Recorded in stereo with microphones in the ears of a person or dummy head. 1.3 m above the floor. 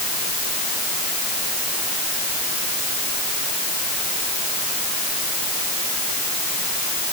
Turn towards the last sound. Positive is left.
No sound to turn to.